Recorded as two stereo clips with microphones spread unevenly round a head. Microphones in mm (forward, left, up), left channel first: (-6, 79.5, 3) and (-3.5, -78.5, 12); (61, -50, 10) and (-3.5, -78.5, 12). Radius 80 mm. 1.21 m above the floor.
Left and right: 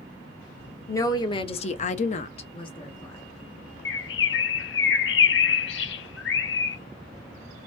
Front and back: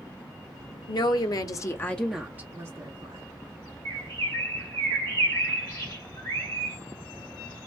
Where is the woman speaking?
20° left, 0.8 m; by 3.2 s 155° left, 1.1 m.